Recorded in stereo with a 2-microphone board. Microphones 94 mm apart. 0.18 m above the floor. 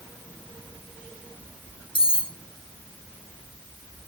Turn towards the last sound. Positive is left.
turn(degrees=65)  # may be behind; listen again after turning